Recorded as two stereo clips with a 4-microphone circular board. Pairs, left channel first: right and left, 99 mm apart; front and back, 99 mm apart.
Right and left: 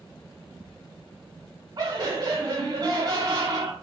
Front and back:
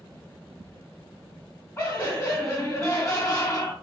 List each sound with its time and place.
1.8 s laughter: 55° left, 1.3 m